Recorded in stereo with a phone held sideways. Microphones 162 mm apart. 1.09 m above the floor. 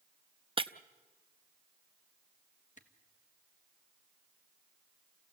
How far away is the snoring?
No snoring in this recording.